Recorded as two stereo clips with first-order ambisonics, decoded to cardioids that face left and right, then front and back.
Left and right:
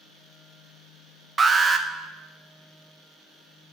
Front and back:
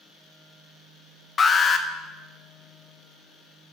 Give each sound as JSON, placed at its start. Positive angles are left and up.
{"t": 1.4, "sound": "an alarm", "azimuth_deg": -40, "distance_m": 0.6}